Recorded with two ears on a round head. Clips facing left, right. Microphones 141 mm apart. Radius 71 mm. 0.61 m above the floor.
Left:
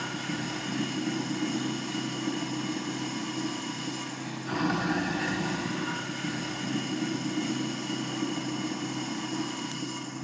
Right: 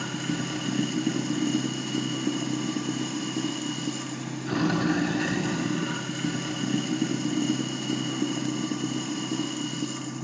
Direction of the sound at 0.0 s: 35° right (ahead or behind).